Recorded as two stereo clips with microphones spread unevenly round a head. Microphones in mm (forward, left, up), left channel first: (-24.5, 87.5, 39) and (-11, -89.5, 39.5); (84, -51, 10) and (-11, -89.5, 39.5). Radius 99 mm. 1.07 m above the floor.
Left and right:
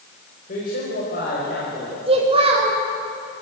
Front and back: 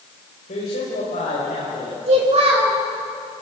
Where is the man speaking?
45° left, 5 m; by 2.0 s 55° left, 6.5 m.